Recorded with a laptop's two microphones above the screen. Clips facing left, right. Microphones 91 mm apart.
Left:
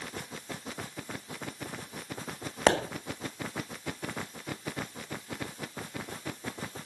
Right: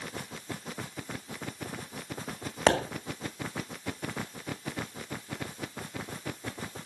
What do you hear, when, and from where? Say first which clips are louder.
2.7 s a pop: even; 5° left (ahead or behind), 1.5 m